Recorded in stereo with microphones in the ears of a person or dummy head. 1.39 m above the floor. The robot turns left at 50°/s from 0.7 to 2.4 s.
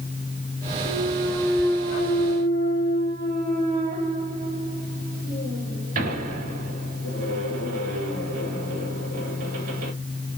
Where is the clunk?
30° left (ahead or behind), 3 m; by 9.9 s 45° right (ahead or behind), 3 m.